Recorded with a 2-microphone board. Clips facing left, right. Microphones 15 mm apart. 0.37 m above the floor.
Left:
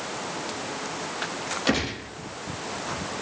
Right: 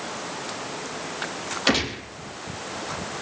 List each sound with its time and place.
1.7 s a gunshot: 30° right (ahead or behind), 4 m